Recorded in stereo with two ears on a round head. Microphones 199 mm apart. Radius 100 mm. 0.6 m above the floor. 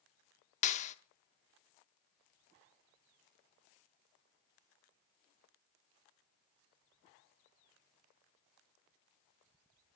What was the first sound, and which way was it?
A clap, 30° left (ahead or behind).